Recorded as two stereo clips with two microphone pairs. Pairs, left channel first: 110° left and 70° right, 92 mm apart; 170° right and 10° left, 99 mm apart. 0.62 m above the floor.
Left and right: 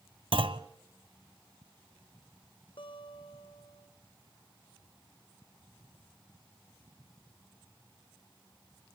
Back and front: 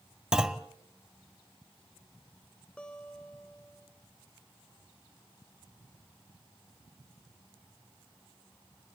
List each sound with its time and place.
0.3 s a clunk: 75° right, 0.9 m
2.8 s a guitar: 110° left, 1.9 m